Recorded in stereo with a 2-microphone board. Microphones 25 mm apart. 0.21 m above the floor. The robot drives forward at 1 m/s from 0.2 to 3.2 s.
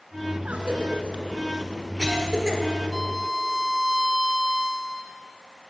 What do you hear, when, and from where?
0.5 s a cough: 50° right (ahead or behind), 1.8 m; by 2.6 s 25° right (ahead or behind), 3 m
2.9 s a violin: 5° left (ahead or behind), 0.6 m; by 5.1 s centre (ahead or behind), 0.8 m